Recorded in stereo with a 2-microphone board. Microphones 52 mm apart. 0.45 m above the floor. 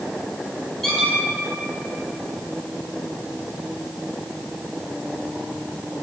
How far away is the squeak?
About 1.0 m.